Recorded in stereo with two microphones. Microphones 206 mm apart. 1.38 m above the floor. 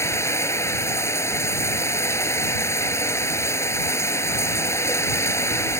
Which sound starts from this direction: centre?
Running water, at 0.0 s.